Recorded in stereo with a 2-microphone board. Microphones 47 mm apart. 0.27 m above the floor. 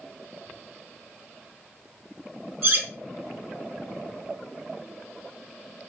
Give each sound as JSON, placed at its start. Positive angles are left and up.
{"t": 2.6, "sound": "cutlery clinking", "side_deg": -45, "distance_m": 0.8}